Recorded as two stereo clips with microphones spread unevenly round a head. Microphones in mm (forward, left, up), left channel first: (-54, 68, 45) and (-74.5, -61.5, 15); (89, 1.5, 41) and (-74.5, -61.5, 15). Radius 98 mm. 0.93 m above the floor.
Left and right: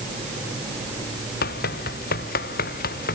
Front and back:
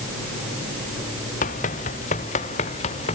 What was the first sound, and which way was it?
Running footsteps, 75° left.